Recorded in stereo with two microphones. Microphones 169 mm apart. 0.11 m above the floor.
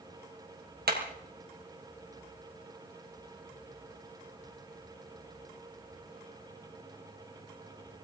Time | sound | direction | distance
0.9 | hammering | 65° right (ahead or behind) | 2.5 m